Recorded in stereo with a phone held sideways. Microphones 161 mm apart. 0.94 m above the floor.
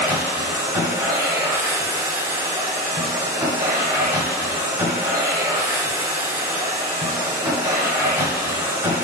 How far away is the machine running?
About 1.7 m.